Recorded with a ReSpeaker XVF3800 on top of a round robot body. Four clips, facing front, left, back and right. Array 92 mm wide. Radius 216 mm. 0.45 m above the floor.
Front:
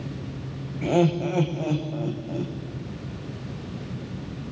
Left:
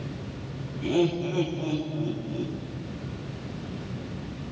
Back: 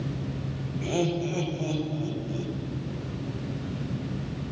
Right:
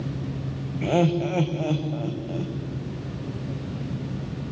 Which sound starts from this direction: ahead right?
Laughter, at 0.8 s.